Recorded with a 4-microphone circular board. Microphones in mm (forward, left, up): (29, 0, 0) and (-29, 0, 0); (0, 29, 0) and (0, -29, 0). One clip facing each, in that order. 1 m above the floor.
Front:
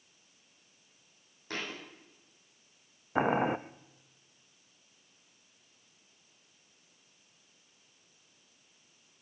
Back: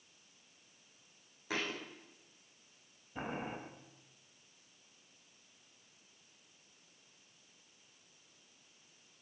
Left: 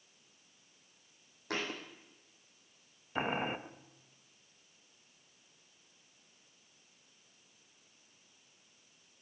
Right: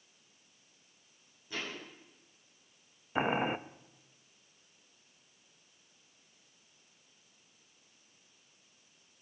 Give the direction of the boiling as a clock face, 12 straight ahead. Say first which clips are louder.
Front 14 dB, right 4 dB; 12 o'clock.